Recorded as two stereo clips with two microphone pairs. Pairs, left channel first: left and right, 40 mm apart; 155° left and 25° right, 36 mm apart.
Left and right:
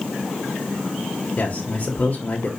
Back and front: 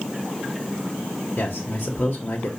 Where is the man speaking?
145° left, 1.9 m.